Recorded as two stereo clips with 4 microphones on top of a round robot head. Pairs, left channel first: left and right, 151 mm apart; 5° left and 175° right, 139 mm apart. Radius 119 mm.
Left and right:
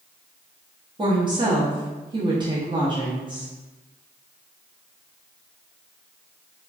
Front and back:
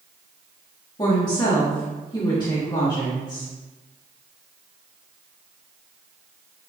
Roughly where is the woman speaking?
Ahead right.